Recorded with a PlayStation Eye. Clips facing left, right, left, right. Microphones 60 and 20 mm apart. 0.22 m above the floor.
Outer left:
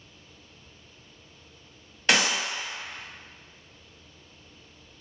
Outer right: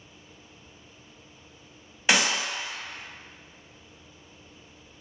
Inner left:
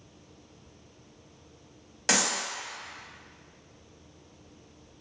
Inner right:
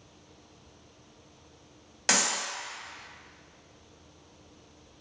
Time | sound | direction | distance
2.1 | a clap | 10° right (ahead or behind) | 0.9 m